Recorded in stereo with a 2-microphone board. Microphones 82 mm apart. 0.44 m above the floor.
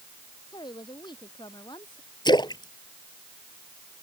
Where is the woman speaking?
65° left (ahead or behind).